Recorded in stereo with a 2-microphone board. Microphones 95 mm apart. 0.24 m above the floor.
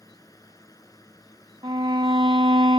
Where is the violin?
60° right (ahead or behind).